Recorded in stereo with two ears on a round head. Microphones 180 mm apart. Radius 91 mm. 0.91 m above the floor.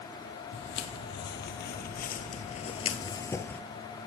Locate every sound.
0.5 s footsteps: 60° left (ahead or behind), 1.8 m; by 3.6 s 5° left (ahead or behind), 1.1 m